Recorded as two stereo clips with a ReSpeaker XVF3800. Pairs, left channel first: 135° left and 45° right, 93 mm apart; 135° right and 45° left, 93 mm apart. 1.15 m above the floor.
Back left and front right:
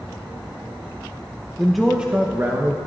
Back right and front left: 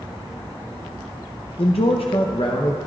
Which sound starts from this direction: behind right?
A man speaking, at 1.6 s.